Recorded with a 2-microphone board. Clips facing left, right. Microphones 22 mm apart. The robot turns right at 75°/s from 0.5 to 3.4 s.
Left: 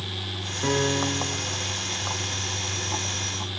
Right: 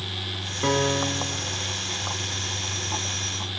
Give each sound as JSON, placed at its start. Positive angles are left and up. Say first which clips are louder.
{"t": 0.6, "sound": "a piano", "louder": "right 1 dB", "azimuth_deg": -45, "distance_m": 1.2}